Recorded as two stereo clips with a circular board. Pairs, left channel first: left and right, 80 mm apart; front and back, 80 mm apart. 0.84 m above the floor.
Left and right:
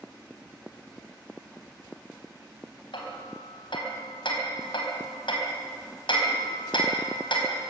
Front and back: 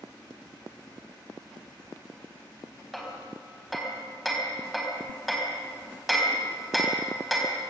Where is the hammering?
90° left, 4 m.